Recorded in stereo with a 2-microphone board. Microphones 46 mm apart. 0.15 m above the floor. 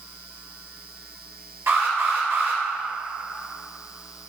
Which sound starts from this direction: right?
An alarm, at 1.7 s.